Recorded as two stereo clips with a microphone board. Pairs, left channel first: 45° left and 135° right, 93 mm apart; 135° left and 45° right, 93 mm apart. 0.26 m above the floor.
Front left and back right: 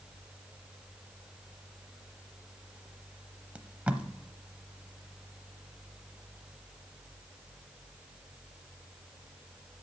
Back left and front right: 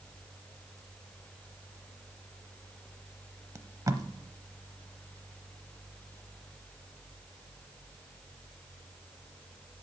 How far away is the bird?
No bird in this recording.